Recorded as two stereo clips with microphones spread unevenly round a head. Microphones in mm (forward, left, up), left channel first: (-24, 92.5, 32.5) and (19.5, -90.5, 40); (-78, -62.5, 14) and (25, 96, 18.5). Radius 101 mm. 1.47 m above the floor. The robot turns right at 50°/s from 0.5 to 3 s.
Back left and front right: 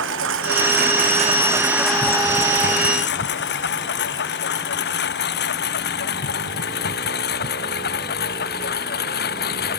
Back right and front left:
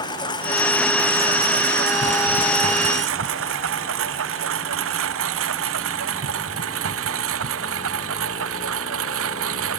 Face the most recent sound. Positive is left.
turn(degrees=60)